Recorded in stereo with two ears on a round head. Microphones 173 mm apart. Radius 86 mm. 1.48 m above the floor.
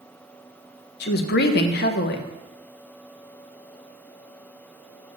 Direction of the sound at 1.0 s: 55° left (ahead or behind).